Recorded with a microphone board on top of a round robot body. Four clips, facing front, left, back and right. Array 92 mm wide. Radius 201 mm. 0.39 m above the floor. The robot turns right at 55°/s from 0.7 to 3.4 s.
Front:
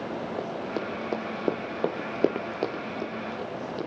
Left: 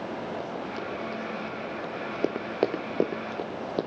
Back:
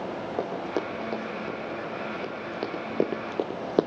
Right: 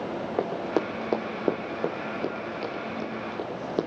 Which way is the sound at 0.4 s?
105° right.